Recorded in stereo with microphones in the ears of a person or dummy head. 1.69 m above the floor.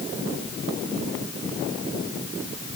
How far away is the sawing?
No sawing in this recording.